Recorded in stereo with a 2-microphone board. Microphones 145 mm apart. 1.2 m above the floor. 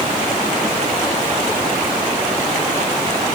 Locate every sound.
Only background noise.